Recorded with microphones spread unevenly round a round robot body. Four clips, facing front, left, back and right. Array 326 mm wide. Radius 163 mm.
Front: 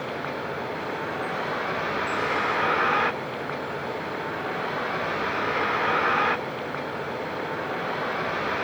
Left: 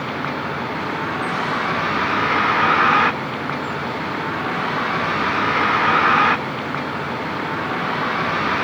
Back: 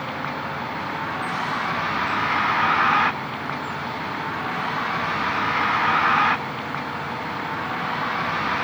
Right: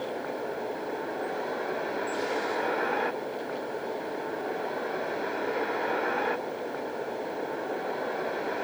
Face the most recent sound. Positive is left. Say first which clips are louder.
# left 8 dB, back 2 dB
turn(degrees=105)